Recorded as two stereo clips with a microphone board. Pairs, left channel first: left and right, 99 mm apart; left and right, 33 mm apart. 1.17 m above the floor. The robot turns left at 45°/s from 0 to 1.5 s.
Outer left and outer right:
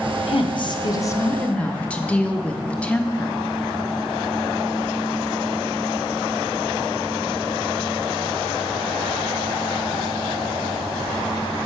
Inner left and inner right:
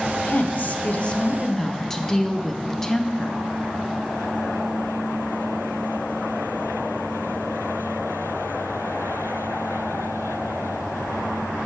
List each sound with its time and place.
0.3 s a woman speaking: 70° left, 0.8 m; by 3.4 s 15° left, 0.8 m